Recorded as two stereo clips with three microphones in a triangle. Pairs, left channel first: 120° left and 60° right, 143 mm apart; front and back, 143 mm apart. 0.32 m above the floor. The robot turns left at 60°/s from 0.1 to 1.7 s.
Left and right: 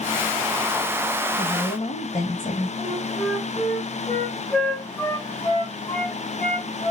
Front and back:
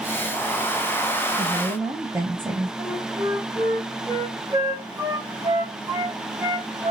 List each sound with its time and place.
1.4 s a woman speaking: 130° left, 1.4 m; by 2.7 s 115° left, 1.4 m
2.8 s a flute: 175° left, 1.5 m